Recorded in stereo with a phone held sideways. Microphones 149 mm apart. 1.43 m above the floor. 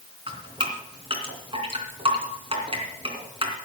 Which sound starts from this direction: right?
Dripping, at 0.3 s.